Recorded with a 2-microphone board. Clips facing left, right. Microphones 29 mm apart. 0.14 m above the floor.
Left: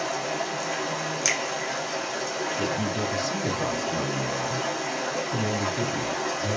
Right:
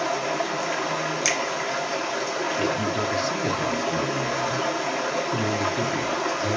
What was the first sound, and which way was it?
Running water, 25° right (ahead or behind).